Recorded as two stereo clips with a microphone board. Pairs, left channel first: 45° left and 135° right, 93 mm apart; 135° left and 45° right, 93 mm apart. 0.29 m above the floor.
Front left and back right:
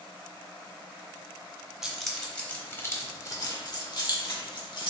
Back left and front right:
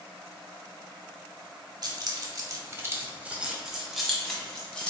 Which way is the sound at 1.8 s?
50° right.